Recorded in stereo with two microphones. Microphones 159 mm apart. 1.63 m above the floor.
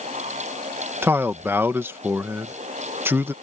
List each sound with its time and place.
1.0 s a man speaking: 15° right (ahead or behind)